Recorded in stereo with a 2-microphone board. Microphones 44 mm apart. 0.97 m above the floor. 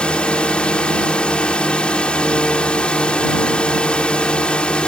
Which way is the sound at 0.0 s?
25° left (ahead or behind).